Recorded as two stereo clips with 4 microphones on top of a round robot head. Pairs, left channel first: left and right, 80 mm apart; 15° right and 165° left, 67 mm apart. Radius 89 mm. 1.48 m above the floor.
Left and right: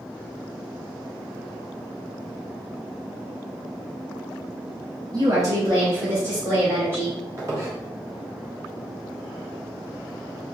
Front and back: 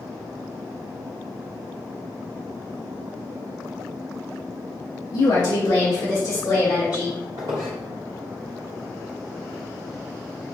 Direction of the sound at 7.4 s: 140° right.